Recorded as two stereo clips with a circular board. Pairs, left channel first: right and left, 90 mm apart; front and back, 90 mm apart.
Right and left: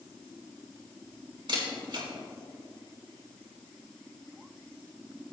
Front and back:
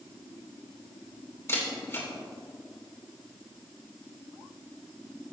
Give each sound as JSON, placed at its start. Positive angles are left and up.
{"t": 1.5, "sound": "a camera shutter", "azimuth_deg": 60, "distance_m": 2.5}